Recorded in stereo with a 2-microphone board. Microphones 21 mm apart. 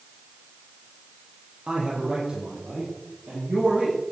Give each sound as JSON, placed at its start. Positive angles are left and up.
{"t": 1.7, "sound": "a man speaking", "side_deg": -45, "distance_m": 4.0}